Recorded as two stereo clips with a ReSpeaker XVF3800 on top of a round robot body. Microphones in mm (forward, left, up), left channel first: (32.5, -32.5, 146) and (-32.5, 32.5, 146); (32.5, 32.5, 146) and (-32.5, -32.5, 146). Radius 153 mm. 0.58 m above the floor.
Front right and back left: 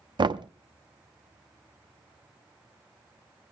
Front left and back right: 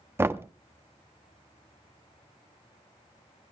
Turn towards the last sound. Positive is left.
turn(degrees=165)